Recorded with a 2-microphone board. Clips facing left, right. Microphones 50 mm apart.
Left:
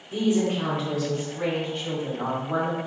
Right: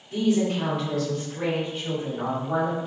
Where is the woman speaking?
25° left (ahead or behind), 1.1 m; by 2.8 s 15° right (ahead or behind), 1.7 m.